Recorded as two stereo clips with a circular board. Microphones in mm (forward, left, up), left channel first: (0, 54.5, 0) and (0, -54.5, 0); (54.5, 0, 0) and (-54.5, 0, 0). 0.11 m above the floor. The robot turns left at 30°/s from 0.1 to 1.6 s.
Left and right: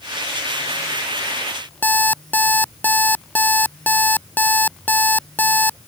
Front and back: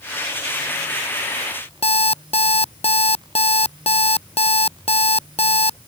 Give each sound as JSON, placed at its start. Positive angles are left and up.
{"t": 1.8, "sound": "an alarm clock", "azimuth_deg": 15}